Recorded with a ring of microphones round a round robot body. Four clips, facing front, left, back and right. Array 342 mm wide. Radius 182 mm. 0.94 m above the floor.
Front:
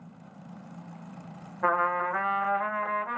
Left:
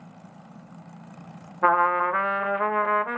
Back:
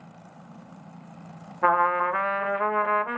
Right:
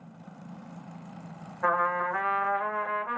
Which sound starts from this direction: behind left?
A trumpet, at 1.6 s.